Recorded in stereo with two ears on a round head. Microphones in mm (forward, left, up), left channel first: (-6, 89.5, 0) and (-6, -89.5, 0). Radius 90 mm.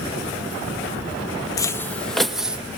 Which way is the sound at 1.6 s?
20° left (ahead or behind).